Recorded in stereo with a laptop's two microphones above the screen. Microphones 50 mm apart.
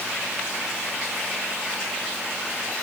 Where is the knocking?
I don't hear knocking.